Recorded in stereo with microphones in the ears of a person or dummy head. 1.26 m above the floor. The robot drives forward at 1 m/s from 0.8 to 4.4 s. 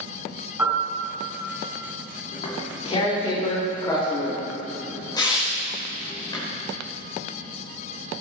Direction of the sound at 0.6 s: 5° right (ahead or behind).